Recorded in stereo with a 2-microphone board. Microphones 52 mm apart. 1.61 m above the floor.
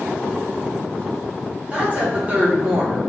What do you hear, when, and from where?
1.7 s a woman speaking: 25° right (ahead or behind), 1.4 m